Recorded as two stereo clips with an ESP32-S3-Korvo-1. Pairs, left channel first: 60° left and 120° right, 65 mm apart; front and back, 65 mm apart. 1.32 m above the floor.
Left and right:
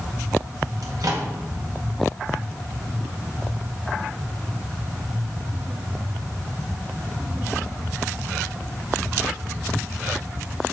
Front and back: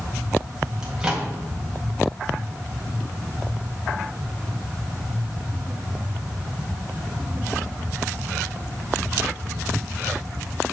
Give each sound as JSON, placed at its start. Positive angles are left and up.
{"t": 0.8, "sound": "a microwave", "azimuth_deg": -105, "distance_m": 1.7}